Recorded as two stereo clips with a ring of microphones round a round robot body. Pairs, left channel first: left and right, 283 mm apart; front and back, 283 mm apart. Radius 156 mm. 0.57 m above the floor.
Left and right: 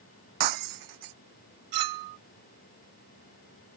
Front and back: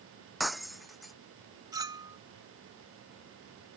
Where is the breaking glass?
90° right.